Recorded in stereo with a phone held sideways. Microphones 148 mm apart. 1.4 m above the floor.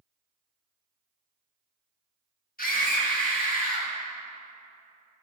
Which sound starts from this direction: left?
A scream, at 2.6 s.